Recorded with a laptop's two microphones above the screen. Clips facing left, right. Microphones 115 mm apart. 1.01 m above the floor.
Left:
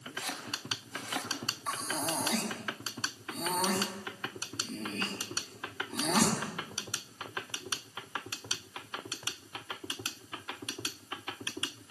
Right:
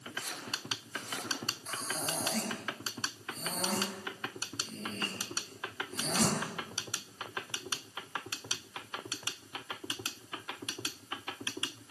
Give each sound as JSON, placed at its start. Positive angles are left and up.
{"t": 0.2, "sound": "chopping", "side_deg": 85, "distance_m": 6.0}
{"t": 1.7, "sound": "breathing", "side_deg": 80, "distance_m": 5.0}